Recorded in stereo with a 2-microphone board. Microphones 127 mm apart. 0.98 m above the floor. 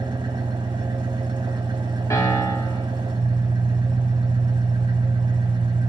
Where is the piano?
25° left (ahead or behind), 3 m.